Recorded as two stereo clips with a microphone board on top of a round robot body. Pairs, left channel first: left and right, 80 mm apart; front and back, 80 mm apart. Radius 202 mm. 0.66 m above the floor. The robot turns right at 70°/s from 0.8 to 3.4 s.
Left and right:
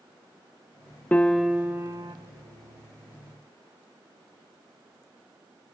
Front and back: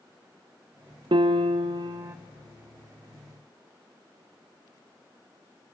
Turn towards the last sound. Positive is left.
turn(degrees=-35)